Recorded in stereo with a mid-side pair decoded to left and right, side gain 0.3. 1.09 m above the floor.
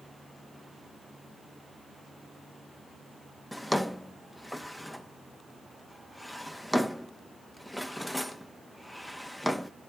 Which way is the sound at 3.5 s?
10° left.